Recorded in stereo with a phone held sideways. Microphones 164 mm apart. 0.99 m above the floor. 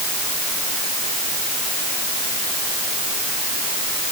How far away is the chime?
I don't hear a chime.